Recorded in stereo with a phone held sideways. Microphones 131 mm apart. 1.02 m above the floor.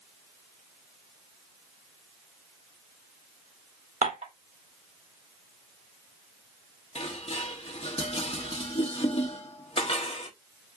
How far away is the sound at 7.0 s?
About 1.1 m.